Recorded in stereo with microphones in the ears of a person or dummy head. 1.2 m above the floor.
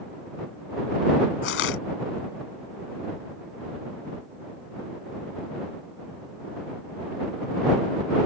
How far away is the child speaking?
I don't hear a child speaking.